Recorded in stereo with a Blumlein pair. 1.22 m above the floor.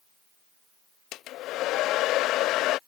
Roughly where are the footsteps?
No footsteps in this recording.